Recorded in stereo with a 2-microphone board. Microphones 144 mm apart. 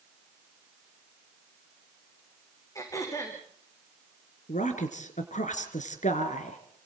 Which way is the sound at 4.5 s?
70° left (ahead or behind).